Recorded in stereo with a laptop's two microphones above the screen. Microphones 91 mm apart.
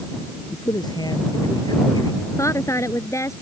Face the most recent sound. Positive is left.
turn(degrees=35)  # may be behind; listen again after turning